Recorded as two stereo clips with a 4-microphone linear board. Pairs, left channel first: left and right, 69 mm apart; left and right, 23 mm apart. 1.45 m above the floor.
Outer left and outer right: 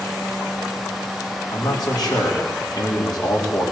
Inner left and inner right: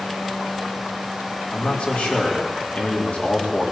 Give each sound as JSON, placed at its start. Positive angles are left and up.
{"t": 1.5, "sound": "a man speaking", "side_deg": 85, "distance_m": 4.0}